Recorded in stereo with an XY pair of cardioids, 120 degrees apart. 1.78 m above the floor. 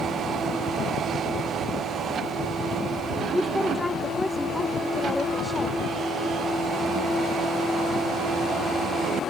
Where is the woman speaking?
10° left.